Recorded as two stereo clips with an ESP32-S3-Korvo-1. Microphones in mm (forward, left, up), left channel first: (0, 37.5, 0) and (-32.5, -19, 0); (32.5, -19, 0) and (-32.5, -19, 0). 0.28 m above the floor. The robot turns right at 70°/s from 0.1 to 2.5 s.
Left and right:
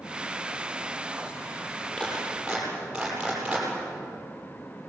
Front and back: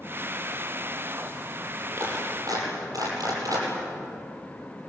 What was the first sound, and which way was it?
A clap, 125° left.